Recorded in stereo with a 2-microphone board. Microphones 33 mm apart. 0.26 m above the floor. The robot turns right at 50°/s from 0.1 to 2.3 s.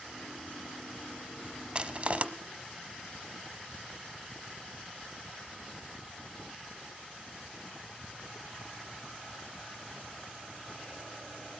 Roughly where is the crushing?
Right.